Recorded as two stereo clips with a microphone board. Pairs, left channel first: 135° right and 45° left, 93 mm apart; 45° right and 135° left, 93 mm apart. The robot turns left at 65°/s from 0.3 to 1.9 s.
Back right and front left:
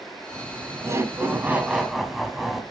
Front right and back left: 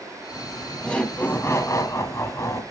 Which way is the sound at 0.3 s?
65° left.